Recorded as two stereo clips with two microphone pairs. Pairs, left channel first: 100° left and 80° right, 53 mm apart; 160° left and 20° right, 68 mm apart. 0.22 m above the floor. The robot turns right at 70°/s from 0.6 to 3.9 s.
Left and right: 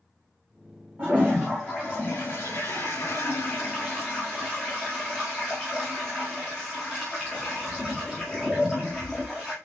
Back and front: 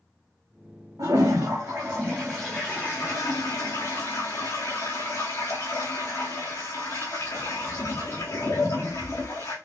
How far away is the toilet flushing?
About 4 m.